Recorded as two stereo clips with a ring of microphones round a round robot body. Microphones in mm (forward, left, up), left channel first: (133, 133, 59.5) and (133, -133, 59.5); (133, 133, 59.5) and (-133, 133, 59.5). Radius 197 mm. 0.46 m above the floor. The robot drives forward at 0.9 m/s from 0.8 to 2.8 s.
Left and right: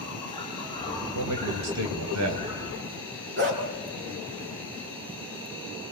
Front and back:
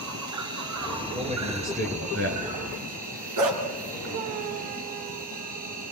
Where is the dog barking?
150° right, 2.5 m.